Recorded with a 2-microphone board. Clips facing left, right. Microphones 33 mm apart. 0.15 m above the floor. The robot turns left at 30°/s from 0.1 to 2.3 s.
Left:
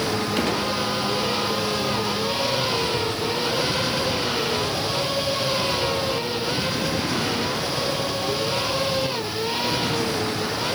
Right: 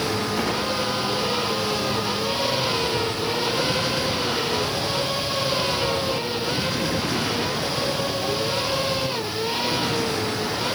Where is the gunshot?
70° left (ahead or behind), 3.5 m; by 0.7 s 65° left (ahead or behind), 3.5 m.